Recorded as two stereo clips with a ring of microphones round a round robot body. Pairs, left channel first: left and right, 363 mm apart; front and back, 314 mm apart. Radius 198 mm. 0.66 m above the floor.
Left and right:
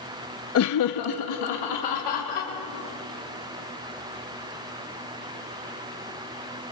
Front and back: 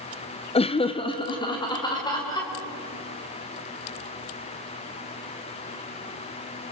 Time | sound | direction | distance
0.6 | laughter | 65° left | 0.7 m